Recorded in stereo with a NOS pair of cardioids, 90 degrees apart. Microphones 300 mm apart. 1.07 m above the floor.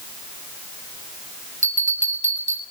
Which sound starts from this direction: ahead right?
A bell, at 1.6 s.